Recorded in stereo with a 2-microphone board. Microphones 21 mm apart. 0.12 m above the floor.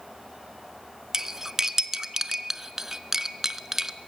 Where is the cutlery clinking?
20° right (ahead or behind), 0.7 m.